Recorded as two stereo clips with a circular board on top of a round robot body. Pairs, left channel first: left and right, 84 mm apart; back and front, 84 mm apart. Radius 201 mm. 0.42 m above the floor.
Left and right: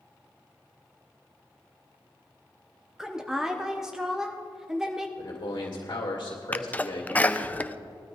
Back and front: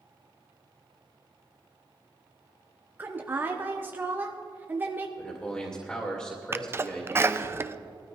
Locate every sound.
3.0 s a woman speaking: 15° right, 1.1 m
5.2 s a man speaking: 110° left, 2 m
6.5 s a sneeze: 30° left, 0.8 m